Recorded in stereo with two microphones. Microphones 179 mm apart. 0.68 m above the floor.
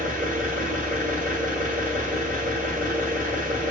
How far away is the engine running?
About 1.1 m.